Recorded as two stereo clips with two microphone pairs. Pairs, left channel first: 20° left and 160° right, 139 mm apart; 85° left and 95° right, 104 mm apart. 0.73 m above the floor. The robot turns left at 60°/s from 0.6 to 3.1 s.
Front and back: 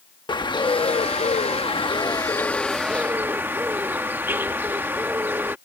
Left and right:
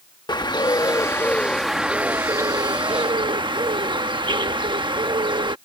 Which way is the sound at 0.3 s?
60° left.